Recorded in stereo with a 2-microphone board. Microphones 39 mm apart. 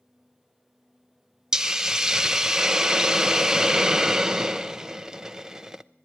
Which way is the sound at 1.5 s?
15° right (ahead or behind).